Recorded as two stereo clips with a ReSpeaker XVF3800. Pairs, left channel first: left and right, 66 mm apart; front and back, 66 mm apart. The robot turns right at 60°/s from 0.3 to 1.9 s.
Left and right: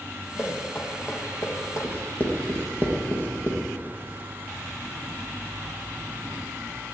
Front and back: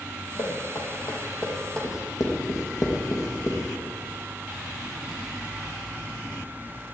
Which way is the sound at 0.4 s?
5° right.